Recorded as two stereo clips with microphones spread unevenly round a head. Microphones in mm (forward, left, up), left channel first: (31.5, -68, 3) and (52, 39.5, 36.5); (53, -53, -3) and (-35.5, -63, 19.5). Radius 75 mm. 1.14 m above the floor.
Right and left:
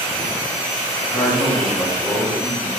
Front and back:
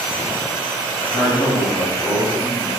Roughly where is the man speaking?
Ahead.